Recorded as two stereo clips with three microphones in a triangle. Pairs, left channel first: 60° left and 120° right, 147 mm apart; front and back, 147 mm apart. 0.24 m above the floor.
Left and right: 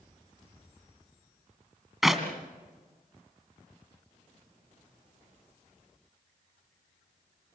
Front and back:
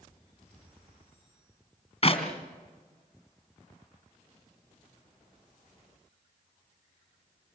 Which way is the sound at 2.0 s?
30° right.